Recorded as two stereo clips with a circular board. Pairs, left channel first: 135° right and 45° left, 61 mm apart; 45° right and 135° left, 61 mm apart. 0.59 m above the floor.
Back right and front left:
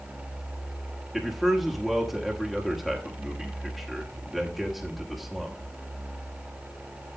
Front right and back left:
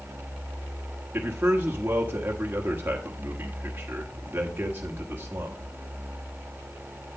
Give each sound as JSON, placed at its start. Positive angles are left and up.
{"t": 1.1, "sound": "a man speaking", "azimuth_deg": 135, "distance_m": 1.3}